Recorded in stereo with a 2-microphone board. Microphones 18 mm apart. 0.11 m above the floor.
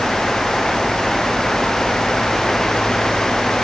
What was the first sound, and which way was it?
Only background noise.